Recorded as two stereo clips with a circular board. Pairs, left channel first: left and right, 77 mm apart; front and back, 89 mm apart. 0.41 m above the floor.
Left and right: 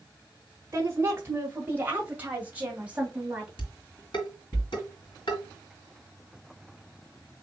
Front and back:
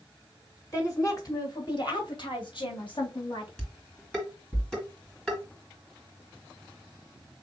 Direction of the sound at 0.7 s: 45° right.